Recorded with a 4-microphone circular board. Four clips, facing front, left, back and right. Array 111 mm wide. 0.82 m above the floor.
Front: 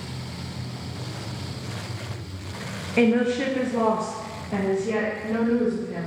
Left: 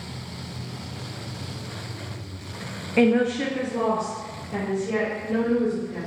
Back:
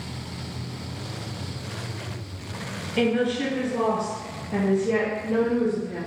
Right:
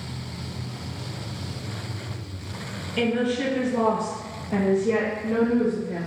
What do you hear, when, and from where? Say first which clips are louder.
3.0 s a woman speaking: left 4 dB, front 3 dB; 60° left, 0.6 m; by 6.1 s 75° right, 1.6 m